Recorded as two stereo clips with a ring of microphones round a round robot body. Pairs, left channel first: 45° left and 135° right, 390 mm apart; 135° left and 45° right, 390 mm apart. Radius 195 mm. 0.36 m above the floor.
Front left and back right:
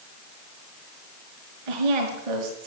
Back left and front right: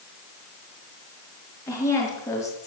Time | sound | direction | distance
1.7 | a woman speaking | 145° right | 5 m